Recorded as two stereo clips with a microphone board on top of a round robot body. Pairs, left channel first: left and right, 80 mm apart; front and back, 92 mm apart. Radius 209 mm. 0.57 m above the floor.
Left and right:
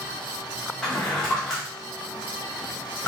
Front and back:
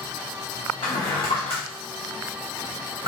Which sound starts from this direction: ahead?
A drawer, at 0.8 s.